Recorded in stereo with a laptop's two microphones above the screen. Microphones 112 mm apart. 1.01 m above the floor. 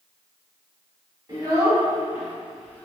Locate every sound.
1.3 s a child speaking: 35° right (ahead or behind), 1.2 m; by 2.9 s 15° left (ahead or behind), 0.6 m